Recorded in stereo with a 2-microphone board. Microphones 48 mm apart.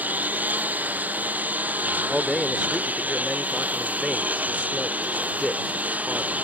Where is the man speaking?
5° left (ahead or behind).